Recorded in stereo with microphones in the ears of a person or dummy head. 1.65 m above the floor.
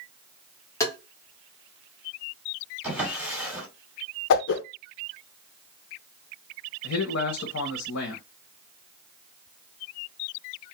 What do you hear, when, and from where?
0.8 s tapping: 15° left (ahead or behind), 1.1 m
2.8 s a drawer: 5° right (ahead or behind), 2 m
4.3 s a whoosh: 70° left (ahead or behind), 0.5 m
6.8 s a man speaking: 80° left, 0.7 m